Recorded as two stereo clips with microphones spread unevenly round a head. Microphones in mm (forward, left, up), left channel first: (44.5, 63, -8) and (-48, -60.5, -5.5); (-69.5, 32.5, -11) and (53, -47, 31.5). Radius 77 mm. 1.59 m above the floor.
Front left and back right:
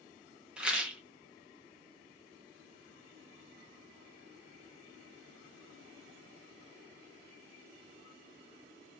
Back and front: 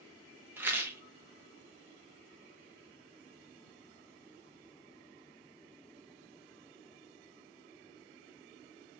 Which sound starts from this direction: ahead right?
A rattle, at 0.6 s.